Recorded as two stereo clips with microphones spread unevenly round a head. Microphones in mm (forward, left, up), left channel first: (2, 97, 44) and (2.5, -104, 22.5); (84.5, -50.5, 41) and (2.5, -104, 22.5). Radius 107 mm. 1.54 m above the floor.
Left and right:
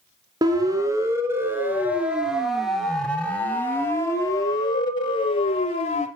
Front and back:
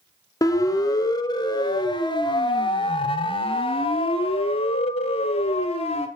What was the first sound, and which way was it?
A siren, 15° right.